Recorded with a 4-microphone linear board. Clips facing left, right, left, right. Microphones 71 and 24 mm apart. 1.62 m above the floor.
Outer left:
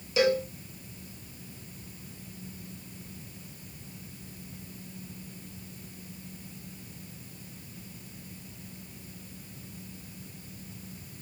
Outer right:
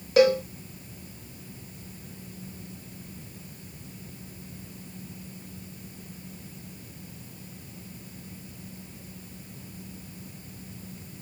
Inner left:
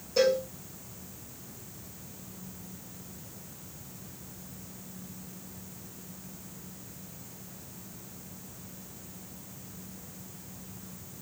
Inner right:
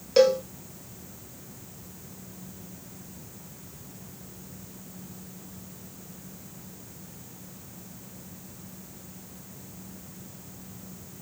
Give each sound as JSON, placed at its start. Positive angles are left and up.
{"t": 0.2, "sound": "a cowbell", "side_deg": -55, "distance_m": 0.8}